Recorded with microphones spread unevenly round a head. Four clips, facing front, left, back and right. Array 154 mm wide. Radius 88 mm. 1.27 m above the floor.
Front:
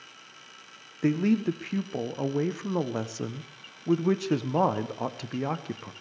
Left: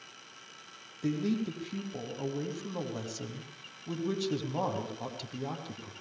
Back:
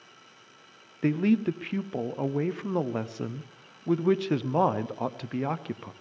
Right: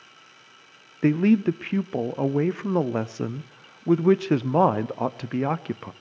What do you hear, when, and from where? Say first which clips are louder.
1.0 s a man speaking: right 12 dB, even; 75° right, 0.8 m